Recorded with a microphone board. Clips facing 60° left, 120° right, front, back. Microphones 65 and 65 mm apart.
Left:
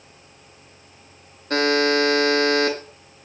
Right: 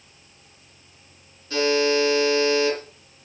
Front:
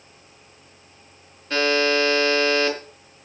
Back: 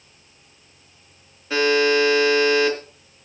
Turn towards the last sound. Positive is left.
turn(degrees=95)